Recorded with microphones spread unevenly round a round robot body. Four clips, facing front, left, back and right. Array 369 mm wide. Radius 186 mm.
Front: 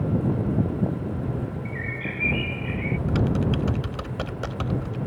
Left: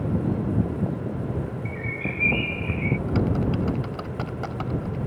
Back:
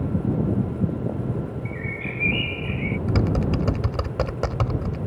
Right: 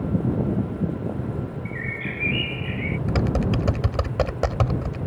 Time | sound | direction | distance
1.6 | a bird | 80° right | ?
3.1 | typing on a keyboard | 115° right | ?